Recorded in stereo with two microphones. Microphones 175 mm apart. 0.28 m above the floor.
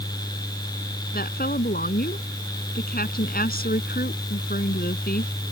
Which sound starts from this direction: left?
A woman speaking, at 1.1 s.